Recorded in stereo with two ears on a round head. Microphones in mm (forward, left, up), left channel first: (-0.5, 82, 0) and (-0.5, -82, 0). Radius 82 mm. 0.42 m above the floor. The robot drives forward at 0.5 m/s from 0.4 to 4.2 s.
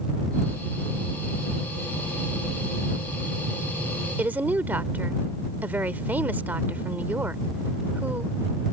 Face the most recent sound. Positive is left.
turn(degrees=-10)  # may be behind; listen again after turning